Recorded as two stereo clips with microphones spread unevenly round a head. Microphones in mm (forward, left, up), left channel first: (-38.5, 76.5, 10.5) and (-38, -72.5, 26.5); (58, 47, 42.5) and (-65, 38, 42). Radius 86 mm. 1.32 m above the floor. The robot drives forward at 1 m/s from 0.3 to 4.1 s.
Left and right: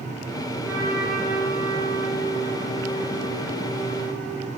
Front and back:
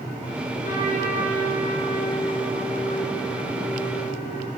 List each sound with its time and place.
0.6 s a trumpet: 15° left, 7.5 m; by 4.5 s 25° left, 4.5 m